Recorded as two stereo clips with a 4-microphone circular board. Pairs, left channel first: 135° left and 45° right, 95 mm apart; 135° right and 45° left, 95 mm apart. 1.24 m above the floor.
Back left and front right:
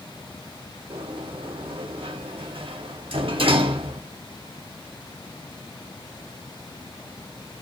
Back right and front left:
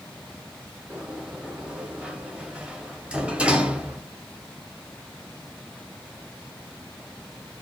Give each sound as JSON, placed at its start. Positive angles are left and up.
{"t": 0.9, "sound": "a sliding door", "azimuth_deg": -35, "distance_m": 0.6}